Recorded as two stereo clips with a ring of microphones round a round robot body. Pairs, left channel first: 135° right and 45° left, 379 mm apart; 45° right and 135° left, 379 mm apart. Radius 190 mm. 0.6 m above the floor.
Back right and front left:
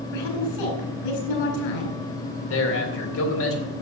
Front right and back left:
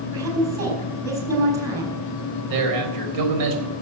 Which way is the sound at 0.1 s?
145° right.